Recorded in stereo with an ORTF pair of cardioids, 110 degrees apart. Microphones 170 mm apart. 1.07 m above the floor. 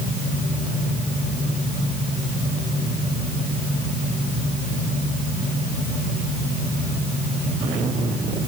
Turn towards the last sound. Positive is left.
No sound to turn to.